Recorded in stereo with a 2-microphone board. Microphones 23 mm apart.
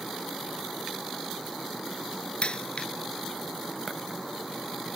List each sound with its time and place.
2.4 s a dropped coin: 50° left (ahead or behind)